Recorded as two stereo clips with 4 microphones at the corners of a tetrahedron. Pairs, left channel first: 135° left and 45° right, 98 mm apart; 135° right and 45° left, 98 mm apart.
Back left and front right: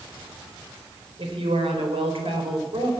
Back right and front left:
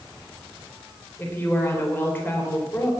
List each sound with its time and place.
1.2 s a woman speaking: 65° right, 3.5 m